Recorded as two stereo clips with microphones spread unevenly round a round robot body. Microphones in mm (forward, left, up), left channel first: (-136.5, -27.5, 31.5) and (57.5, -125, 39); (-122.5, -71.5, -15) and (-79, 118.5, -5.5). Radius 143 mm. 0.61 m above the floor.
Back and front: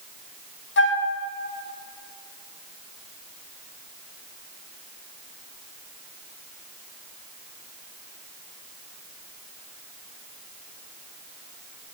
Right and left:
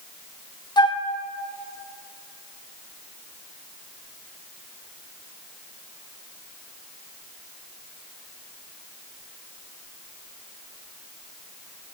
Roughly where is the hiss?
I don't hear a hiss.